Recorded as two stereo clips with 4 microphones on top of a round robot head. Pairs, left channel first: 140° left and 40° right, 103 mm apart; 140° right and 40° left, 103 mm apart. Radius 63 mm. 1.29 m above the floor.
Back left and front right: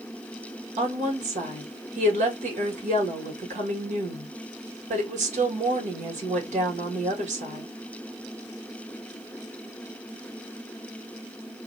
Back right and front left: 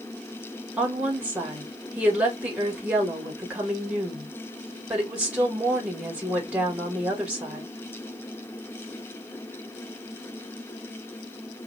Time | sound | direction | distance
0.8 | a woman speaking | 40° right | 1.8 m